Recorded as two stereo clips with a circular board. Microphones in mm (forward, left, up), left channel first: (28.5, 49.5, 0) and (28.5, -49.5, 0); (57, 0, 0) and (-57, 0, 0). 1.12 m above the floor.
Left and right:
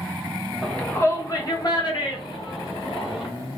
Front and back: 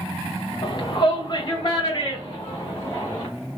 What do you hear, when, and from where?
0.6 s a shout: straight ahead, 0.6 m; by 3.3 s 60° left, 2.5 m